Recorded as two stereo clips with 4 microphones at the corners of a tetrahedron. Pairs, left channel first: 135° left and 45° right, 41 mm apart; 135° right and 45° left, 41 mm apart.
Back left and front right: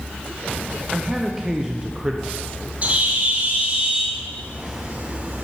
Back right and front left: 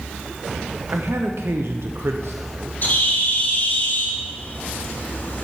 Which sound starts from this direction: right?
A bird, at 2.8 s.